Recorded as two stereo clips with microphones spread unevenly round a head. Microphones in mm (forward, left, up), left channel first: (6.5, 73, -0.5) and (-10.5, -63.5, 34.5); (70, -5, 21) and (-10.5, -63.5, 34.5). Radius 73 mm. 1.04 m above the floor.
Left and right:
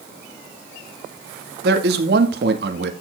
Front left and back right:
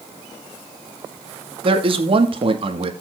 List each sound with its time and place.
1.6 s a man speaking: 115° right, 2.5 m